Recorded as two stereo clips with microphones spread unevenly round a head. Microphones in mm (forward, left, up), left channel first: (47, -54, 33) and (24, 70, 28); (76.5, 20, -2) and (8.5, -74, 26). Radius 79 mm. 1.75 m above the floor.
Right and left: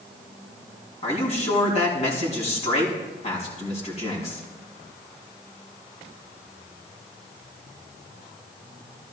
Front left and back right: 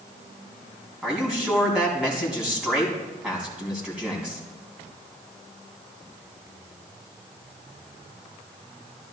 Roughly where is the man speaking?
Ahead right.